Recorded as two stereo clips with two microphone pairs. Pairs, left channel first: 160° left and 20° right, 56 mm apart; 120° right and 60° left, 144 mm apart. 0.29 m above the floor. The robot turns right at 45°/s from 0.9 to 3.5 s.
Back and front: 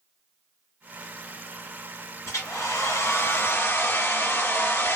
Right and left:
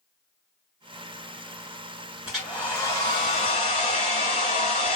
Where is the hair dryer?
145° left, 1.9 m; by 5.0 s 160° right, 1.9 m.